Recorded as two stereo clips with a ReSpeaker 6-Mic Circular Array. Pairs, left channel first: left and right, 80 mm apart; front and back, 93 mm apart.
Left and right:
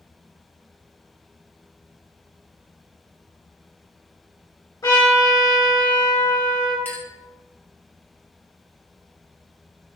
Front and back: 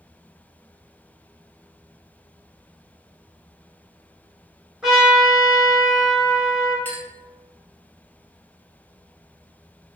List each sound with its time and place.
4.8 s a trumpet: 100° left, 1.2 m
6.8 s a clink: 50° left, 0.7 m